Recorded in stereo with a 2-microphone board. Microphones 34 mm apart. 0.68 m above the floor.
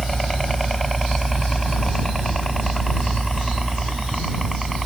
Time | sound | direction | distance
0.0 | a helicopter | 5° left (ahead or behind) | ?